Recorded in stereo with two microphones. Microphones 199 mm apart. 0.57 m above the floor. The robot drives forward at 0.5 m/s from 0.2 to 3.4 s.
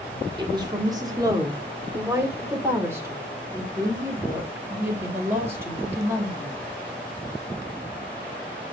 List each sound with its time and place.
0.4 s a woman speaking: 20° right (ahead or behind), 1.4 m; by 6.6 s 10° right (ahead or behind), 2.5 m